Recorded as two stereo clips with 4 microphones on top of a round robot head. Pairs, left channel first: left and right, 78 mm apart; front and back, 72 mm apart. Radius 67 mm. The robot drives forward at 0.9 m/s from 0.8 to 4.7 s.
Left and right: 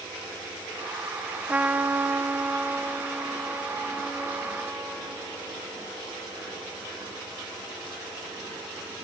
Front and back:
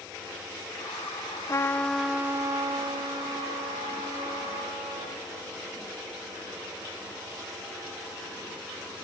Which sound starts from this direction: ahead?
A trumpet, at 1.5 s.